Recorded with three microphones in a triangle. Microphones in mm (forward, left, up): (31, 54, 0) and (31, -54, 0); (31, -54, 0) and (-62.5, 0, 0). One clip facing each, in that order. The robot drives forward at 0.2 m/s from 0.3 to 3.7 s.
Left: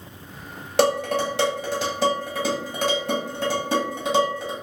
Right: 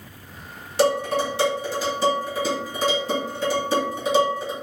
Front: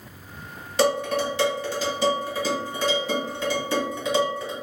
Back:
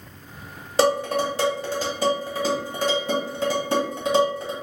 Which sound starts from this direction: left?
Dishes clattering, at 0.8 s.